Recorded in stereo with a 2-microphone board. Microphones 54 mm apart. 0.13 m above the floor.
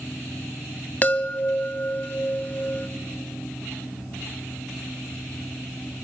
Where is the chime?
30° left (ahead or behind), 0.6 m.